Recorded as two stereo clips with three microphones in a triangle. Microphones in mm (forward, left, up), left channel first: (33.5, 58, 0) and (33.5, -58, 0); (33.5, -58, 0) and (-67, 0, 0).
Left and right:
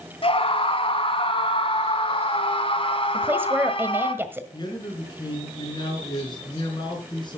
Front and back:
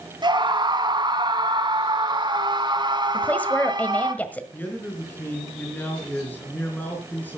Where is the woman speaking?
75° right, 1.4 m.